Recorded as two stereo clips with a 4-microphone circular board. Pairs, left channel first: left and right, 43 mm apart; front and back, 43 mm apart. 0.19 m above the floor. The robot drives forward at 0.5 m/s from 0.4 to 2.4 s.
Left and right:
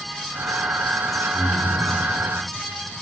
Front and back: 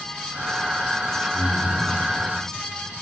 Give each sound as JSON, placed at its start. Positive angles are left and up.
{"t": 1.3, "sound": "breathing", "azimuth_deg": -70, "distance_m": 2.0}